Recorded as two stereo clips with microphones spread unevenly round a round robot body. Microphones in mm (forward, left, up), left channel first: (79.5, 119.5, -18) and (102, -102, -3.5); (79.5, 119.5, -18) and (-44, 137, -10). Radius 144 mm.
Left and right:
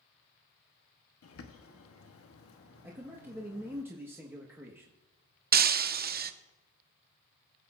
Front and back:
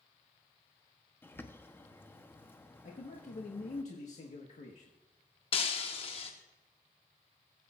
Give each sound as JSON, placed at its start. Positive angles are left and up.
{"t": 1.2, "sound": "a bird", "azimuth_deg": 65, "distance_m": 1.1}
{"t": 2.8, "sound": "a man speaking", "azimuth_deg": 0, "distance_m": 1.4}
{"t": 5.5, "sound": "breaking glass", "azimuth_deg": -50, "distance_m": 0.6}